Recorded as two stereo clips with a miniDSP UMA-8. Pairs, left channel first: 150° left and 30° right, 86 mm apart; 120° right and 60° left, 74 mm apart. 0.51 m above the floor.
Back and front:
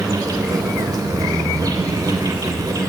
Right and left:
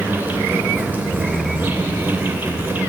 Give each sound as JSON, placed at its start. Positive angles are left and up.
{"t": 0.0, "sound": "an insect", "azimuth_deg": 0, "distance_m": 3.0}